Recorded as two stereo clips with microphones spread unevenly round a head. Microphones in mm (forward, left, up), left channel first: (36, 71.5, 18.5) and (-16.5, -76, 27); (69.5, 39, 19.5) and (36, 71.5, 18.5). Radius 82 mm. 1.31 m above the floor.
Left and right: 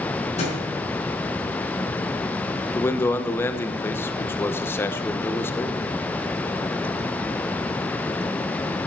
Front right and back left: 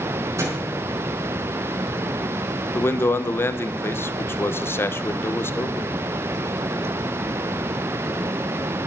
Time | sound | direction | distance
0.4 | a thud | 125° left | 5 m
2.8 | a man speaking | 5° right | 1.0 m